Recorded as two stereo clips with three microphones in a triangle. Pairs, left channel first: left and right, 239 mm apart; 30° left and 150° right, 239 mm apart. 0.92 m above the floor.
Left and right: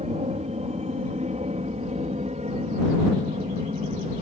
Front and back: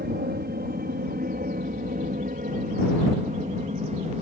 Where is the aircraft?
140° right; by 4.2 s 120° right.